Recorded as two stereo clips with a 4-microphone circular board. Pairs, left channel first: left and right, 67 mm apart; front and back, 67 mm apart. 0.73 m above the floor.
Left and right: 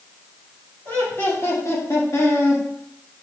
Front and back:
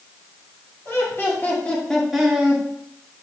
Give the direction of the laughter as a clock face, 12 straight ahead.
11 o'clock.